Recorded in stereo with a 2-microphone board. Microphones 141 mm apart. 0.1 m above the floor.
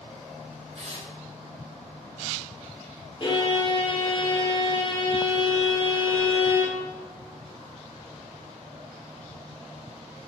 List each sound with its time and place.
0.7 s tearing paper: 60° right (ahead or behind), 4 m
3.2 s a violin: 35° left (ahead or behind), 1.8 m